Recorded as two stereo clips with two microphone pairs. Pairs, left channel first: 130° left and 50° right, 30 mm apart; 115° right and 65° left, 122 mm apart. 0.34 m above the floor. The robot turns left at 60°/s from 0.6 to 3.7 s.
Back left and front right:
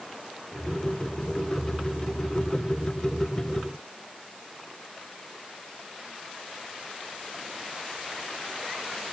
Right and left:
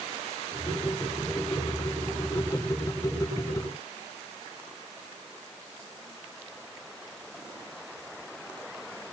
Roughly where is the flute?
No flute in this recording.